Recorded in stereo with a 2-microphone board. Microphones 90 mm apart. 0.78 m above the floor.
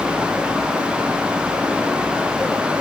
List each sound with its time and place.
Only background noise.